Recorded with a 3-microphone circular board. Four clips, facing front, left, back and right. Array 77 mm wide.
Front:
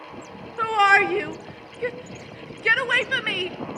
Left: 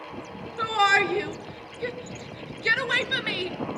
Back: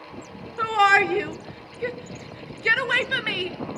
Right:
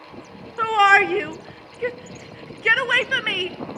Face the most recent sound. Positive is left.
turn(degrees=-80)